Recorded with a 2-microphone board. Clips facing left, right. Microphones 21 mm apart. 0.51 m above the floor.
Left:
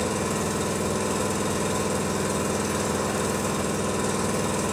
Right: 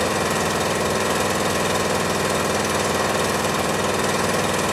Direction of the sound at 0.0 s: 80° right.